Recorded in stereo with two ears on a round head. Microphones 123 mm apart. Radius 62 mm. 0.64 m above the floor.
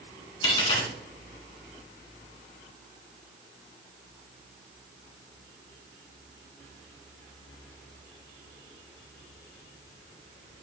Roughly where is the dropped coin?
Left.